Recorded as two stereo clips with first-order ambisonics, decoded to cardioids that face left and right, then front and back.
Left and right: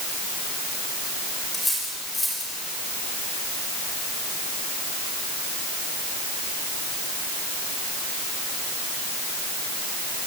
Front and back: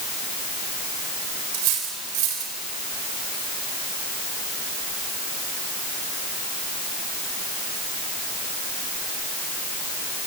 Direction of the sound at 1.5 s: 175° left.